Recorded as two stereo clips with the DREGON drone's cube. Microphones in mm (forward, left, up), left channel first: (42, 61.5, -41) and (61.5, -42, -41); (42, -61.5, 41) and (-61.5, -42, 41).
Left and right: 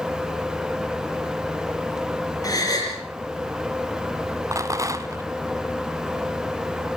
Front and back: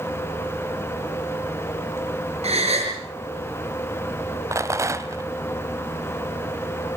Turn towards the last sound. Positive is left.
turn(degrees=-130)